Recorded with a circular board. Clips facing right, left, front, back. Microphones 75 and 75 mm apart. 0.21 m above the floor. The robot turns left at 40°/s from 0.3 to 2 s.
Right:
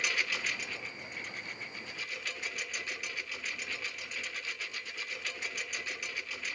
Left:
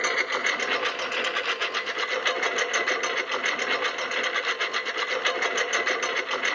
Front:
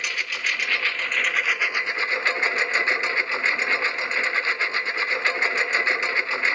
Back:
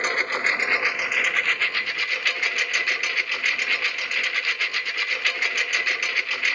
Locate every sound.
0.0 s a lawn mower: 130° left; by 6.6 s 65° left